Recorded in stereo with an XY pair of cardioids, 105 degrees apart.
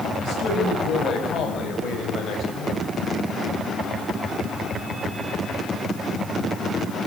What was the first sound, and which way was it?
A man speaking, 70° left.